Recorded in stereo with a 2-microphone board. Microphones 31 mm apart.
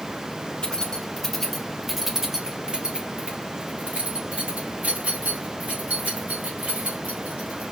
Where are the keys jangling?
25° left (ahead or behind), 1.4 m; by 7.7 s 75° right (ahead or behind), 3.5 m.